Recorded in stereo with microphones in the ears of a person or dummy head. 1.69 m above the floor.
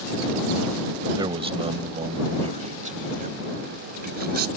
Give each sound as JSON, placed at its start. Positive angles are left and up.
{"t": 1.2, "sound": "a man speaking", "side_deg": -25}